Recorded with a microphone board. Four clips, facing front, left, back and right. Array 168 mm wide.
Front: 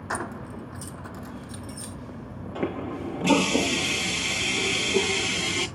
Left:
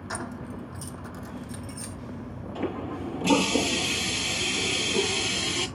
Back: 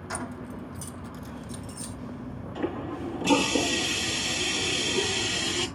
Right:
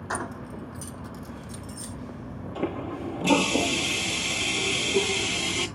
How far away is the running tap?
About 5.5 m.